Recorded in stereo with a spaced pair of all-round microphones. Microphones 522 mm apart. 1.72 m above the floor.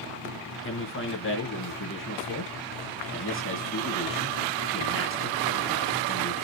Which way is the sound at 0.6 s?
25° left (ahead or behind).